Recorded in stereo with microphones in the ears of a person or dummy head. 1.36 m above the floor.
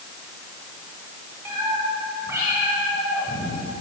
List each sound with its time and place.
1.4 s a cat meowing: 10° right (ahead or behind), 4 m